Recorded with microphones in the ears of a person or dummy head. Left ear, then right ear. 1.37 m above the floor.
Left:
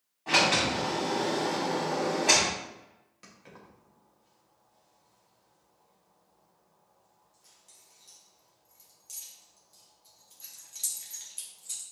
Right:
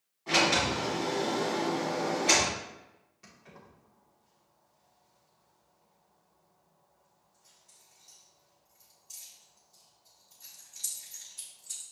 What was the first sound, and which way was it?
A sliding door, 25° left (ahead or behind).